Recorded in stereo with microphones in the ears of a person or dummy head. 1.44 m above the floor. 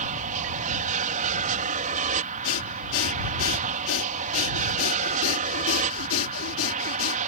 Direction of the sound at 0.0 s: 45° right (ahead or behind).